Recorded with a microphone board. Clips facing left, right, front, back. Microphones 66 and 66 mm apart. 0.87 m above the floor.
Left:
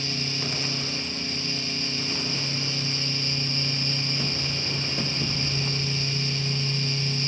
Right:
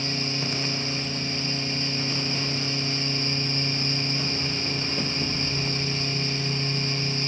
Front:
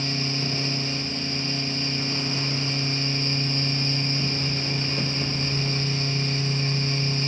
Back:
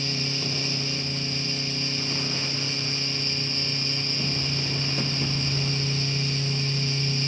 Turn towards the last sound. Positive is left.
No sound to turn to.